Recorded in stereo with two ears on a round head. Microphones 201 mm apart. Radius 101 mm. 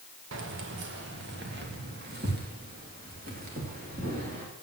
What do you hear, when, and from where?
0.3 s keys jangling: 55° right (ahead or behind), 1.3 m; by 4.5 s 40° right (ahead or behind), 3.5 m